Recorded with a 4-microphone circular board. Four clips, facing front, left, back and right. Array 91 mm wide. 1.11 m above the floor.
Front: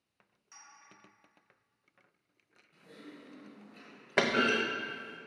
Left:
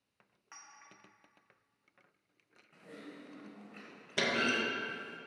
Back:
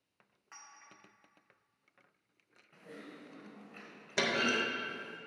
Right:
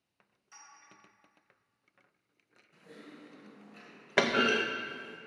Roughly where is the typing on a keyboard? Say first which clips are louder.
Left 1 dB, back 1 dB; behind left.